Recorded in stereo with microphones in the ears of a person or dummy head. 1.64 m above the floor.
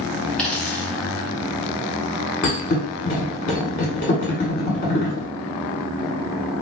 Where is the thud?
45° left (ahead or behind), 1.7 m.